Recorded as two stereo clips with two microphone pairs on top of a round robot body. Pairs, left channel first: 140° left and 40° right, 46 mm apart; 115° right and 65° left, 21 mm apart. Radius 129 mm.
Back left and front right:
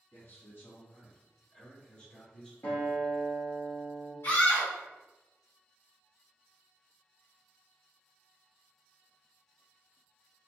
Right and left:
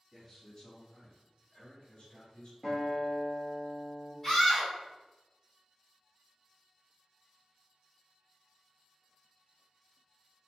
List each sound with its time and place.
0.1 s a man speaking: 175° left, 1.7 m; by 2.5 s 135° right, 1.5 m
2.6 s a guitar: straight behind, 1.2 m
4.2 s a scream: 175° left, 1.2 m